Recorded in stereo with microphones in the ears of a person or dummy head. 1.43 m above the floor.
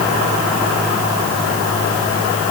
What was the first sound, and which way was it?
Only background noise.